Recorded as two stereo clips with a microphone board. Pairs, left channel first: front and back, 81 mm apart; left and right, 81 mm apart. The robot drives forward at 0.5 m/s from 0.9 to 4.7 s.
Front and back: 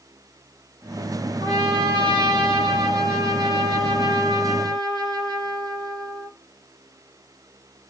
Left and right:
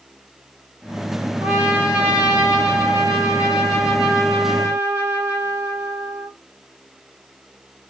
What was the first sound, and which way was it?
A trumpet, 160° right.